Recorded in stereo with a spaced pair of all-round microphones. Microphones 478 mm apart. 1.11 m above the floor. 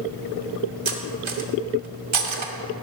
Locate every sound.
0.8 s cutlery clinking: 75° right (ahead or behind), 0.7 m